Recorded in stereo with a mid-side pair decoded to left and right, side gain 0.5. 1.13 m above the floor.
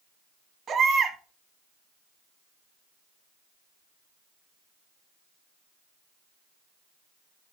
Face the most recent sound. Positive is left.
turn(degrees=-50)